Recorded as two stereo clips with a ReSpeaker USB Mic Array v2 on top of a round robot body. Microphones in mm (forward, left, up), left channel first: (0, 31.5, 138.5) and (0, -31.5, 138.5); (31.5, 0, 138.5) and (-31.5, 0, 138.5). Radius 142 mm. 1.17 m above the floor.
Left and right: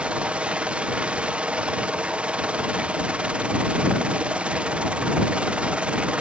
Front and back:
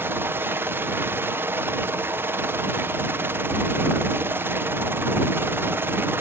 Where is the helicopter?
155° right.